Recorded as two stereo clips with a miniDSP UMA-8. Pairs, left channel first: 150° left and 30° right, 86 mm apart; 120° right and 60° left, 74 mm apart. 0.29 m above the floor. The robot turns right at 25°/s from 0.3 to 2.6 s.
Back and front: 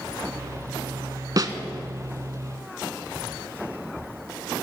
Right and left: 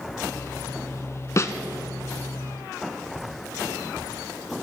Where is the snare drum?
70° right, 1.0 m.